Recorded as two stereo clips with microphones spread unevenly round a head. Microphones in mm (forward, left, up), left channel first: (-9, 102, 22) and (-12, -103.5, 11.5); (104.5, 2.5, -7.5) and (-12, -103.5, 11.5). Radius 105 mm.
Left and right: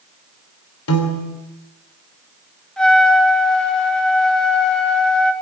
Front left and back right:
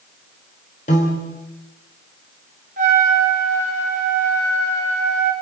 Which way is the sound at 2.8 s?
175° left.